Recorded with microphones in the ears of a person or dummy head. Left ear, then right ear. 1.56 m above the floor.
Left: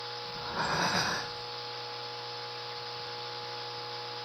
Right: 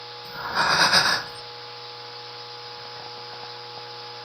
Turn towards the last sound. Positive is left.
turn(degrees=-50)  # may be behind; listen again after turning